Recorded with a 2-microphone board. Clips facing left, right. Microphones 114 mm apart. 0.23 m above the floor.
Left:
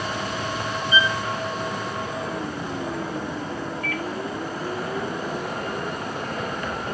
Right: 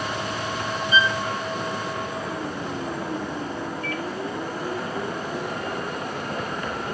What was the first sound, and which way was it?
A violin, 15° left (ahead or behind).